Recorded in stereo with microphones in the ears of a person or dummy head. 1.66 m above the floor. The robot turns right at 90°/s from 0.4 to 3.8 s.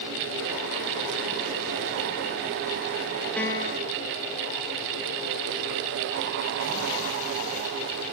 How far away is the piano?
About 1.1 m.